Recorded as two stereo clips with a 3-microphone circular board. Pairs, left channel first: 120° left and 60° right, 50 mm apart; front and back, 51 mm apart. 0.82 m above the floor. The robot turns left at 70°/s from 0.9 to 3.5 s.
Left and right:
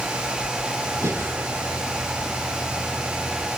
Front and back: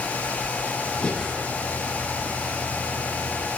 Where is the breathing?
65° right, 6.5 m; by 1.3 s 90° right, 6.5 m.